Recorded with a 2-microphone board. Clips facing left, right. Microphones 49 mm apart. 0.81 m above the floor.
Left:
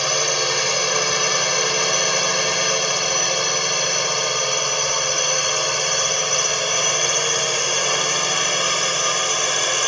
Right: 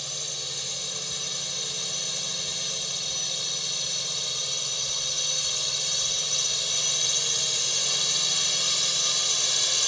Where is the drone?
70° left (ahead or behind); by 9.9 s 50° left (ahead or behind).